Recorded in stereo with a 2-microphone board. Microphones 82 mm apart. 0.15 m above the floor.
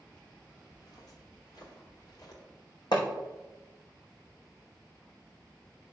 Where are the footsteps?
45° left (ahead or behind), 4 m; by 2.4 s 55° left (ahead or behind), 3.5 m.